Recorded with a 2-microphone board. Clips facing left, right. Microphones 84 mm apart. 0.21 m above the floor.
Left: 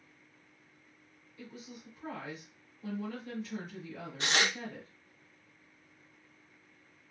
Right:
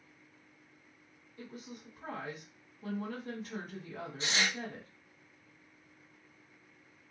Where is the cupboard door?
I don't hear a cupboard door.